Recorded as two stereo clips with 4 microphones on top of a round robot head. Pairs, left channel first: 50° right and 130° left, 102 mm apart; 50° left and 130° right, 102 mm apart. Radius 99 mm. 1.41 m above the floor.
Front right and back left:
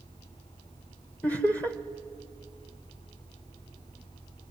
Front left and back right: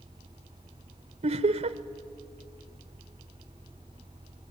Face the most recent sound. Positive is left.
turn(degrees=-125)